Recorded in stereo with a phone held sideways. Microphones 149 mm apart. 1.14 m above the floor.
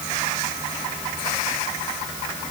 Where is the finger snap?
No finger snap in this recording.